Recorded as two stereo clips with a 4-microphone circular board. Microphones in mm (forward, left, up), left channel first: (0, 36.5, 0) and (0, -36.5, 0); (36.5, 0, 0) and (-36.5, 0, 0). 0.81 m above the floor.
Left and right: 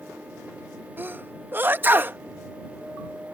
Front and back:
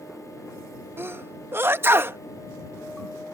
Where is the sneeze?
140° right.